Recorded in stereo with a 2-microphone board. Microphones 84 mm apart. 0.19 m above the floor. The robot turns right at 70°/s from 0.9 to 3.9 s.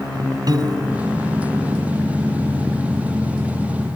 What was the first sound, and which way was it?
A piano, 50° right (ahead or behind).